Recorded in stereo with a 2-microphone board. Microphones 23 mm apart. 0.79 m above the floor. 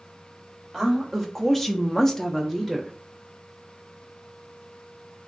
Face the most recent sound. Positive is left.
turn(degrees=10)  # may be behind; listen again after turning